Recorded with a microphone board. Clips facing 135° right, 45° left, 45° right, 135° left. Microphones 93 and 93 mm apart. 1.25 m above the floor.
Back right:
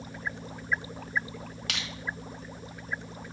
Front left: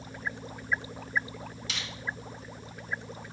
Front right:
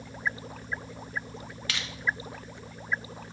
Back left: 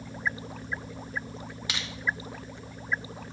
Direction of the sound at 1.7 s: 155° right.